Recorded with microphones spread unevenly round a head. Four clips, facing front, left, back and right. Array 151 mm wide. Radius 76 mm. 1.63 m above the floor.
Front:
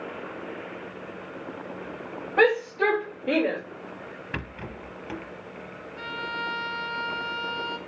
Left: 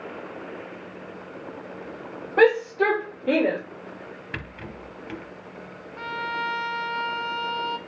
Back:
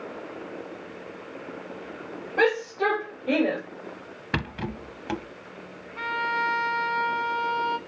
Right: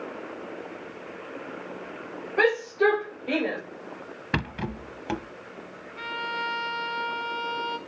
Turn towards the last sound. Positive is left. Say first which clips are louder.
# left 2 dB, back 6 dB
turn(degrees=165)